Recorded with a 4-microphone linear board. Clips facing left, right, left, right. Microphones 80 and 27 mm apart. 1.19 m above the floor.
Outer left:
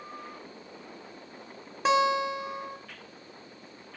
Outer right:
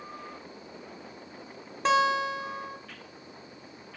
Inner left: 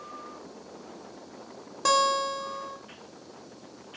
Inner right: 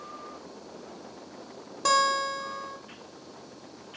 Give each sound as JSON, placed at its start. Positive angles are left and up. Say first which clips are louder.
{"t": 1.9, "sound": "a guitar", "louder": "even, even", "side_deg": 5, "distance_m": 0.7}